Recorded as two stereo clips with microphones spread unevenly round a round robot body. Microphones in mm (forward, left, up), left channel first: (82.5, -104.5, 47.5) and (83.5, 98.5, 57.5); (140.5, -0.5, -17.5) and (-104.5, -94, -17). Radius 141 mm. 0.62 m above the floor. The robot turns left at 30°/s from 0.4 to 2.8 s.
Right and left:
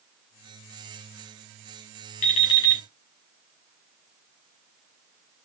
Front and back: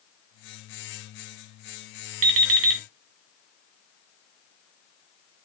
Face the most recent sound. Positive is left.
turn(degrees=-170)